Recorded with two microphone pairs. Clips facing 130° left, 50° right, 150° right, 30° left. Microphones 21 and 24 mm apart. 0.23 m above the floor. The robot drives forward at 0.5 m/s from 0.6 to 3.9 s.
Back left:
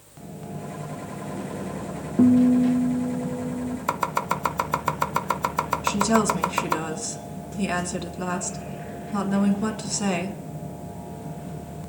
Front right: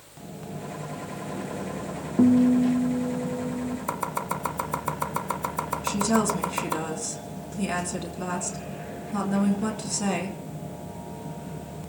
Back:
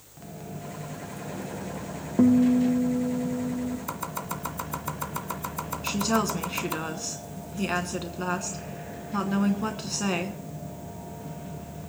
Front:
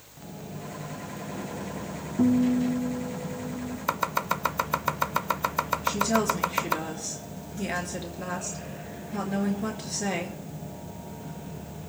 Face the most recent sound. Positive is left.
turn(degrees=-165)